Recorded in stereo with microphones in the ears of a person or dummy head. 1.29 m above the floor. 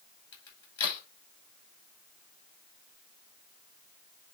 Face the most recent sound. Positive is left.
turn(degrees=35)  # may be behind; listen again after turning